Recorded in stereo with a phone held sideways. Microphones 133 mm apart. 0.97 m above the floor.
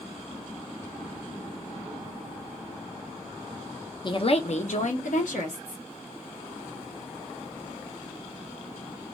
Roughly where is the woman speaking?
Left.